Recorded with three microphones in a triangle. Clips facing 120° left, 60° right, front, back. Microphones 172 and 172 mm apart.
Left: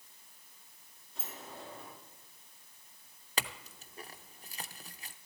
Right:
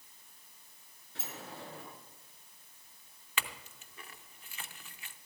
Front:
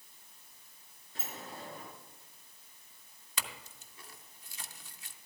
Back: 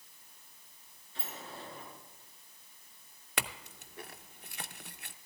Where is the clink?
165° left, 0.5 m.